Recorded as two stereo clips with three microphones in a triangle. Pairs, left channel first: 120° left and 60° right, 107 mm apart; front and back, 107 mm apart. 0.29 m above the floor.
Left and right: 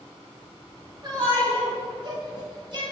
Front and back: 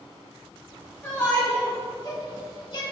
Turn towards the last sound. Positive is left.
turn(degrees=-30)